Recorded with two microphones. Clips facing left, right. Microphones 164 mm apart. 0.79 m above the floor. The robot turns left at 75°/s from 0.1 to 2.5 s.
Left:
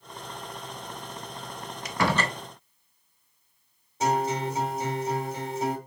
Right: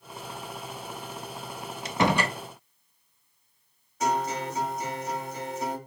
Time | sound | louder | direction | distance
1.9 | a door slam | right 2 dB | 140° right | 0.6 m
4.0 | a guitar | left 2 dB | 30° left (ahead or behind) | 1.9 m